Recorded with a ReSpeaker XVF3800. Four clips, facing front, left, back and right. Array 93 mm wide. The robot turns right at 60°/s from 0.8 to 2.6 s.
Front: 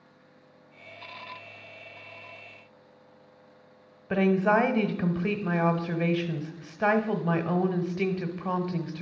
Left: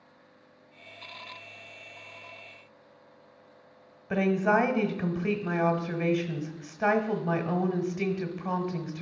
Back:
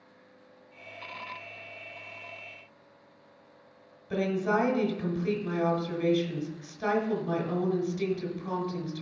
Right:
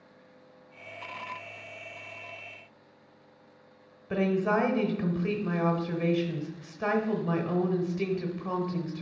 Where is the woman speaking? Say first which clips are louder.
Left 2 dB, front 5 dB; 20° left, 1.1 m.